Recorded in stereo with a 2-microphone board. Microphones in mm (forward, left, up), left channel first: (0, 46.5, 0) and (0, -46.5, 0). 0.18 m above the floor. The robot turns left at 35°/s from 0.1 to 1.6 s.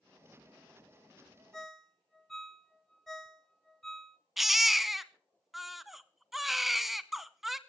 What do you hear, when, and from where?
1.5 s a ringtone: 5° left (ahead or behind), 0.7 m; by 4.2 s centre (ahead or behind), 0.7 m
4.4 s a baby crying: 5° right (ahead or behind), 0.6 m